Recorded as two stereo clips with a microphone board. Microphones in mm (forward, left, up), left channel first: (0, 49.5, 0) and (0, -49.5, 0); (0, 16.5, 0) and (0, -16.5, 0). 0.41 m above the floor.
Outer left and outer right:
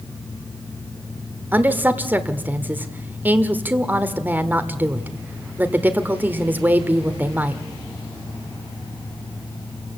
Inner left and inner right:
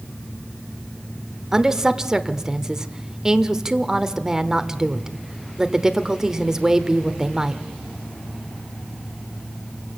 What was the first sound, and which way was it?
A woman speaking, 15° right (ahead or behind).